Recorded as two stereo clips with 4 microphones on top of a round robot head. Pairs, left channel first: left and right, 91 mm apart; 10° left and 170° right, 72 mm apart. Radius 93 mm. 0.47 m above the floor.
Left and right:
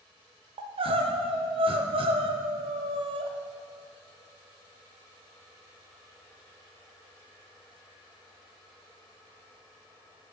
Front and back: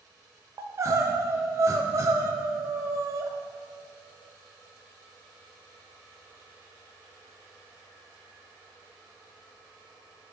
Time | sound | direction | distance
0.6 | crying | 115° right | 0.8 m